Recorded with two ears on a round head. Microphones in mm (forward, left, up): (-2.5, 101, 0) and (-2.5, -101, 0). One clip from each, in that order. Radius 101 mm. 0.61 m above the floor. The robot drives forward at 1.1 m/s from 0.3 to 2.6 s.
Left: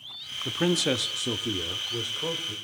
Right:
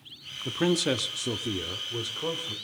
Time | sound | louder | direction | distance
0.5 | a man speaking | left 1 dB | 5° left (ahead or behind) | 0.7 m